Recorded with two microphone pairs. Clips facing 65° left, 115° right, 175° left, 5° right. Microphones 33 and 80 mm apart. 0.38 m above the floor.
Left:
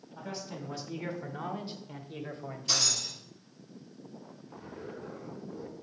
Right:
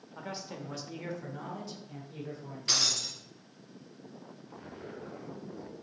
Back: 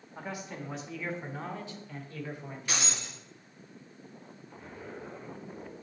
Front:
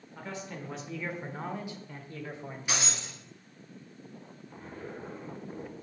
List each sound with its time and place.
0.1 s a man speaking: 130° right, 1.0 m; by 3.1 s 55° left, 1.8 m
2.7 s breaking glass: 80° right, 3.5 m
4.5 s a zipper: 55° right, 2.5 m